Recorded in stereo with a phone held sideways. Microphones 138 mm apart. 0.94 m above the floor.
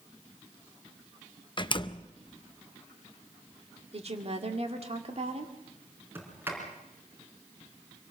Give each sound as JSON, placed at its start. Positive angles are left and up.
{"t": 1.6, "sound": "a door slam", "side_deg": 35, "distance_m": 0.6}
{"t": 3.9, "sound": "a woman speaking", "side_deg": -50, "distance_m": 1.9}
{"t": 6.2, "sound": "a sliding door", "side_deg": -15, "distance_m": 4.0}